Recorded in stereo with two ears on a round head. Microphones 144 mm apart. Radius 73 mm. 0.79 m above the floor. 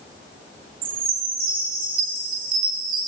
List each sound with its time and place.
0.8 s a chime: 55° right (ahead or behind), 4.5 m